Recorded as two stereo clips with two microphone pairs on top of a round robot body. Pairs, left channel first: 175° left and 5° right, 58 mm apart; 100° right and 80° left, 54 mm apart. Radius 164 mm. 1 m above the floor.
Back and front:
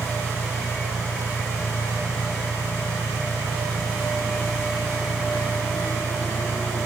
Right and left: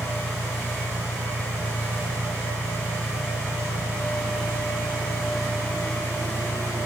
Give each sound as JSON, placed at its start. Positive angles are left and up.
{"t": 0.0, "sound": "an engine running", "azimuth_deg": 65}